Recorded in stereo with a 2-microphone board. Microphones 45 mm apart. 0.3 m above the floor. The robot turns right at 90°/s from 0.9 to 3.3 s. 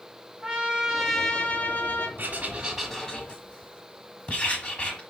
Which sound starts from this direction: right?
Writing, at 2.2 s.